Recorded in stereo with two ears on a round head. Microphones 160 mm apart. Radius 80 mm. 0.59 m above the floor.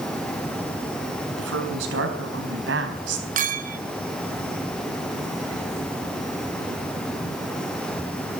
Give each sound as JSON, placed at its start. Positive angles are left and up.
{"t": 1.4, "sound": "a woman speaking", "side_deg": -80, "distance_m": 5.0}
{"t": 3.4, "sound": "a clink", "side_deg": -45, "distance_m": 1.4}